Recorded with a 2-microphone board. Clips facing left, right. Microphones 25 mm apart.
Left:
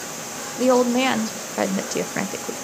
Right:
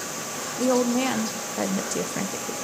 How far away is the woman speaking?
About 0.6 m.